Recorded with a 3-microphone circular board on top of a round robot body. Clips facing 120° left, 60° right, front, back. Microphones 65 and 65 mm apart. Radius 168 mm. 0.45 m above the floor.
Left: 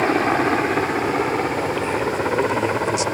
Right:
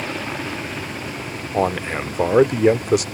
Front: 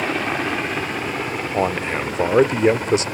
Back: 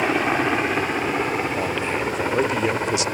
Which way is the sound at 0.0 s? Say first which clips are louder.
Left 10 dB, back 2 dB; 105° left.